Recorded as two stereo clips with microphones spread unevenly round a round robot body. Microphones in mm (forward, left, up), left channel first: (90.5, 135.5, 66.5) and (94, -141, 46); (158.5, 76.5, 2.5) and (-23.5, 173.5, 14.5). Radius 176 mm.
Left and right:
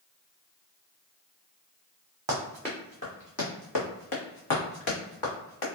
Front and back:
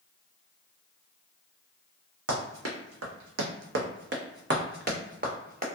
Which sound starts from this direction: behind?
Running footsteps, at 2.3 s.